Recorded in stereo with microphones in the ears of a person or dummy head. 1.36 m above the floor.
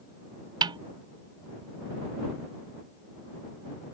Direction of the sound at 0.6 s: 25° right (ahead or behind).